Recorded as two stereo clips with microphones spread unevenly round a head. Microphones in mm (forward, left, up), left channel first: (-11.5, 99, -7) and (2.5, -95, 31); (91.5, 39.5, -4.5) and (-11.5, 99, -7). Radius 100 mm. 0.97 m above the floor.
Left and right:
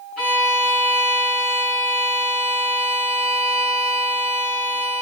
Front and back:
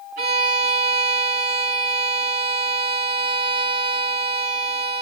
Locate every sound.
0.2 s a violin: straight behind, 5.5 m